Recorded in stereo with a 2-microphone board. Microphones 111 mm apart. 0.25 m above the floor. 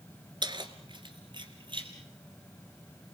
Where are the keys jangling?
45° right (ahead or behind), 2 m.